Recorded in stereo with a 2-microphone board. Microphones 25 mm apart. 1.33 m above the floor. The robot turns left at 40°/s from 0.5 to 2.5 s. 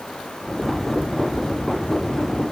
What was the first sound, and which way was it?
Only background noise.